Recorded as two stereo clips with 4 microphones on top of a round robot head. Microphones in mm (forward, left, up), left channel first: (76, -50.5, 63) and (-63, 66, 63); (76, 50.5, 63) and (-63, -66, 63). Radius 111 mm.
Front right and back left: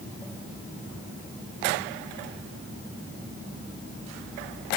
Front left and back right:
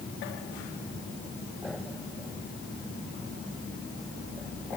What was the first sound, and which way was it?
Only background noise.